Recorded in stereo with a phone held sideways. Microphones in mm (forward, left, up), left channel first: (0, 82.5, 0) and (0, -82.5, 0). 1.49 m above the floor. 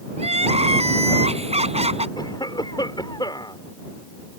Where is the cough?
25° left (ahead or behind).